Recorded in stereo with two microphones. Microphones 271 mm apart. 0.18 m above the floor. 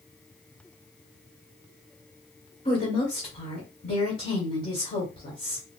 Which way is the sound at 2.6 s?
30° left (ahead or behind).